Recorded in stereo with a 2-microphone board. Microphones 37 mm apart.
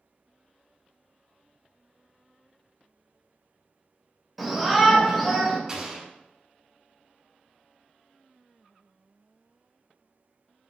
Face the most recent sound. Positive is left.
turn(degrees=-20)  # may be behind; listen again after turning